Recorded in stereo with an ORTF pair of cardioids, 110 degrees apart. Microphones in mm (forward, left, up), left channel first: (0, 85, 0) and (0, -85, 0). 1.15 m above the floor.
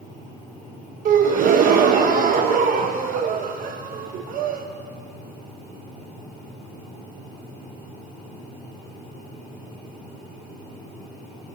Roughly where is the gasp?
Ahead right.